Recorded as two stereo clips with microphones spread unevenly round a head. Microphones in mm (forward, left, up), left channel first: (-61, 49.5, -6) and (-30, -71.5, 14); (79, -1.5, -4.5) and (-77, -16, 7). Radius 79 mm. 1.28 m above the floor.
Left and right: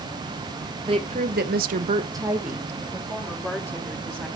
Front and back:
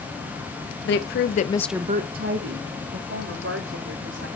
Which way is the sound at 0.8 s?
15° right.